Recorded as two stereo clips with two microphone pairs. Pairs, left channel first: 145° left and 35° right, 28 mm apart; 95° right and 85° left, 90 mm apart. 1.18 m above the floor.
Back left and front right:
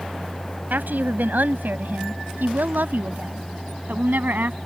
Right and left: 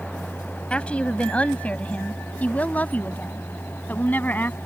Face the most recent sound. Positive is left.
turn(degrees=-25)